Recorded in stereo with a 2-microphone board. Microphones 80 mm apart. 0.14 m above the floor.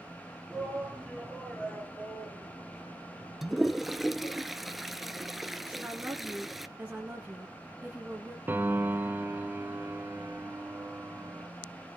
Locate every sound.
0.5 s a shout: 5° right (ahead or behind), 2.5 m; by 4.4 s 50° left (ahead or behind), 2.5 m
3.4 s a toilet flushing: centre (ahead or behind), 0.7 m
5.7 s a woman speaking: 20° right (ahead or behind), 1.9 m
8.5 s a piano: 25° right (ahead or behind), 0.6 m